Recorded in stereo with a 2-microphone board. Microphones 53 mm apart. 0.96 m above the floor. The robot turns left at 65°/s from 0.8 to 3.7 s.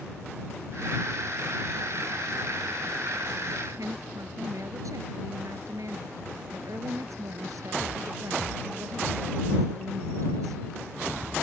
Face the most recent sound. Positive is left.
turn(degrees=-85)